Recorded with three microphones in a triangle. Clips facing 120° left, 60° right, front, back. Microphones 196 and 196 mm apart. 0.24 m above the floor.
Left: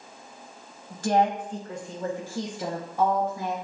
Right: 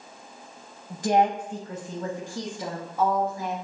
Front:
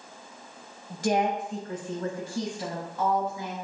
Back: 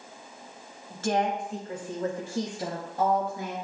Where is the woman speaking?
30° right, 0.9 m; by 3.5 s 175° right, 1.4 m.